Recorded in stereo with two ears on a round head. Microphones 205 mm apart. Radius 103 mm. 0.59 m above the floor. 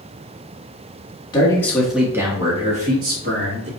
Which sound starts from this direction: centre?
A man speaking, at 1.3 s.